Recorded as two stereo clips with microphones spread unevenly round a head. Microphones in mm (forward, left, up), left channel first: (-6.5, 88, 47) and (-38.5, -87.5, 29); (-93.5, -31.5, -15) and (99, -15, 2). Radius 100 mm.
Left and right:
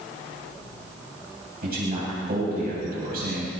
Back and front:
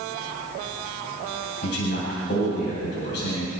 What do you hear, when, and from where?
1.6 s a man speaking: 140° right, 8 m